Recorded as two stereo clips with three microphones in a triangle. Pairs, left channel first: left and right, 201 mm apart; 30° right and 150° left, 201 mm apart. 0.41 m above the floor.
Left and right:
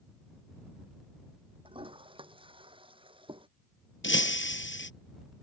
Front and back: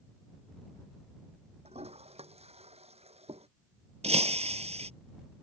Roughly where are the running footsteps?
No running footsteps in this recording.